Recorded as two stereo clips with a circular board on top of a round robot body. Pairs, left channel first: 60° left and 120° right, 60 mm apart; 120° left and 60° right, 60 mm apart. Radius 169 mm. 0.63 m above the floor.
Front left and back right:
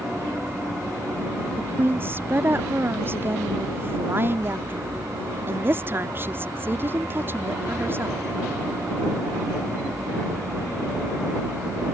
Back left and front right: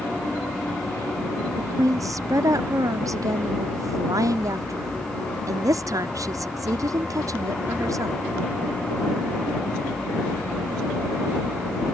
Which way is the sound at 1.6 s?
70° right.